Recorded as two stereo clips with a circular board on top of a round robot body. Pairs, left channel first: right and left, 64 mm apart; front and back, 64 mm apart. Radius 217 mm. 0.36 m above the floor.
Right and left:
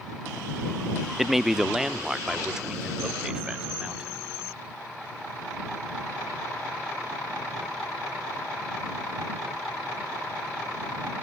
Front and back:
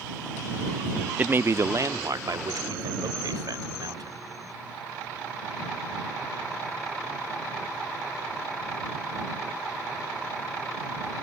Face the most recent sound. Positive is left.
turn(degrees=170)